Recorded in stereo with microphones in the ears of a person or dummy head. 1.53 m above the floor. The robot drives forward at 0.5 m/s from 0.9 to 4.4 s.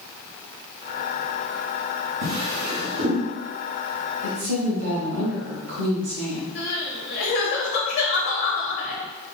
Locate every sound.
2.2 s a drawer: 45° right (ahead or behind), 0.8 m; by 3.2 s 40° right (ahead or behind), 0.9 m
4.2 s a woman speaking: 70° right (ahead or behind), 1.8 m; by 6.5 s 65° right (ahead or behind), 1.8 m
6.5 s crying: 50° left (ahead or behind), 1.2 m